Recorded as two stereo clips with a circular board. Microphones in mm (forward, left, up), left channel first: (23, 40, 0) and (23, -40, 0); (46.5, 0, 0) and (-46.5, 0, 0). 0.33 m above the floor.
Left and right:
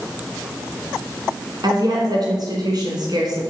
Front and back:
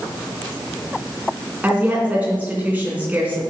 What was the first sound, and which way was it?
A woman speaking, 110° right.